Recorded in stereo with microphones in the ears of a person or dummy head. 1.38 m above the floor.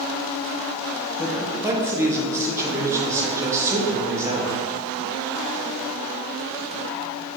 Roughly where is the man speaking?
Right.